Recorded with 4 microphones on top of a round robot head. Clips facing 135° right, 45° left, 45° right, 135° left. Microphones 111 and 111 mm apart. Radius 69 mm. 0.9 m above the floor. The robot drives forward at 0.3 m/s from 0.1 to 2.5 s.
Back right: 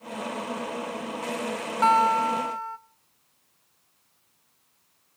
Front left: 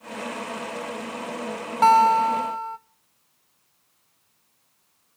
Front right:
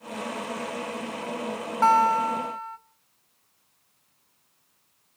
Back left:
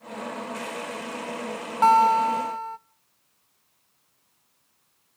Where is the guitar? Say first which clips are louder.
Front left 5 dB, back left 3 dB; 70° left, 0.6 m; by 2.8 s 100° left, 0.6 m.